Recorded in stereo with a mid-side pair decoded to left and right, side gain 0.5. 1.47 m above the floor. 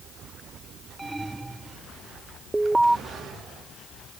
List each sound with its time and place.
1.0 s an alarm: 15° right
2.5 s an alarm: 10° right